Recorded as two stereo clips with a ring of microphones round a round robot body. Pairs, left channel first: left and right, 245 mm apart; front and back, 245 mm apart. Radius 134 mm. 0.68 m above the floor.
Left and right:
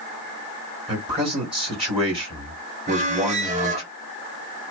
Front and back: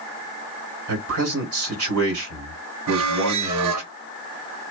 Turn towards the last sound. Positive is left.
turn(degrees=-155)